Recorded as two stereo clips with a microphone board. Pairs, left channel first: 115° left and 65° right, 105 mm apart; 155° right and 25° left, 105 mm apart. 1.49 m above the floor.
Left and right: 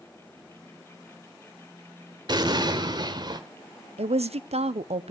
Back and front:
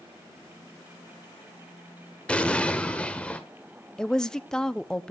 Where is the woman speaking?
75° right, 0.7 m.